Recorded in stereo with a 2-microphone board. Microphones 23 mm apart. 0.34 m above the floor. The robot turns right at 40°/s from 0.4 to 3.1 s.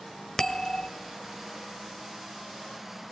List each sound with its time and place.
0.4 s a bell: 25° left (ahead or behind), 1.1 m; by 0.9 s 35° left (ahead or behind), 1.1 m